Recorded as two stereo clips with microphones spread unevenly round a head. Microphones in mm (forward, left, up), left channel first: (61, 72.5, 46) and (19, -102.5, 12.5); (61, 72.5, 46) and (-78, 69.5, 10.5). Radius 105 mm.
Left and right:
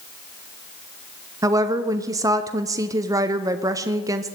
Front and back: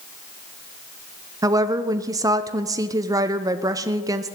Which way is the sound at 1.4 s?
150° right.